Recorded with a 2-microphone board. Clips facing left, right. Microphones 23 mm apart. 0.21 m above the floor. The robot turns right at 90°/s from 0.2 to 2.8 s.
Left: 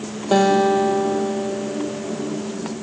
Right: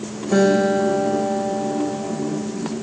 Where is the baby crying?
I don't hear a baby crying.